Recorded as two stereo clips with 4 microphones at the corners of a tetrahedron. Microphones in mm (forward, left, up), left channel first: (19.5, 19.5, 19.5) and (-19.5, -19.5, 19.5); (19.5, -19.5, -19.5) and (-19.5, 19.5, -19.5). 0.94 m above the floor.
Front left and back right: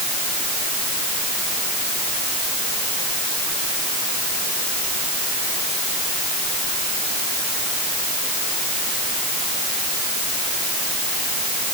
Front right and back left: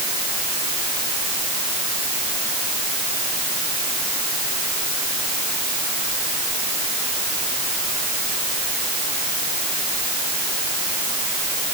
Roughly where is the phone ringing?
No phone ringing in this recording.